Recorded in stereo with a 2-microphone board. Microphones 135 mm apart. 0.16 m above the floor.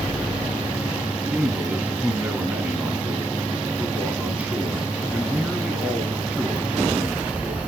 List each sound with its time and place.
1.2 s a man speaking: 10° right (ahead or behind), 1.3 m